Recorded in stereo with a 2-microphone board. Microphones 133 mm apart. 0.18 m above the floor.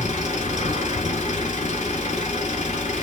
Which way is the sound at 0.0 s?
70° left (ahead or behind).